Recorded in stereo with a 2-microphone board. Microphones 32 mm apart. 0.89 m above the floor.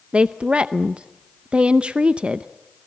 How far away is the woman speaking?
About 0.6 m.